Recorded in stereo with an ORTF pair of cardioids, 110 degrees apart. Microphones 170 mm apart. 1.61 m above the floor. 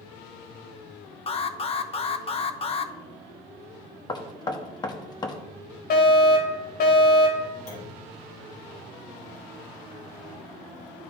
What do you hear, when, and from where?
1.3 s an alarm: 35° left, 0.7 m
4.1 s knocking: 25° left, 1.0 m
5.9 s a fire alarm: 65° left, 2.5 m
7.7 s a clunk: 65° left, 2.5 m